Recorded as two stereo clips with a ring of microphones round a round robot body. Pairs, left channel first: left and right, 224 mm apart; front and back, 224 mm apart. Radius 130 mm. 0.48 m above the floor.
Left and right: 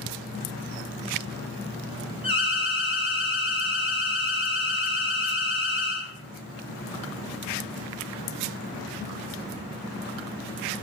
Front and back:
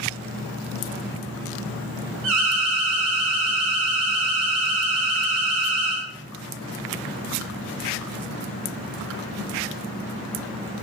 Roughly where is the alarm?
Behind left.